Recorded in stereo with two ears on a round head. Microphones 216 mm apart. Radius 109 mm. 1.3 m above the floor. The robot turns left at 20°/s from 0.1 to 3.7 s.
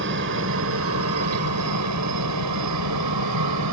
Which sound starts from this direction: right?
A helicopter, at 0.0 s.